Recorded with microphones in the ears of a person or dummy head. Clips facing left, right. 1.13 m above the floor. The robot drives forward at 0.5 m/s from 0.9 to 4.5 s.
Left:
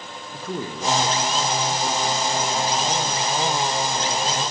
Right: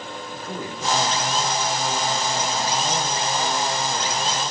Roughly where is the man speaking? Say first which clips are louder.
Left 4 dB; left.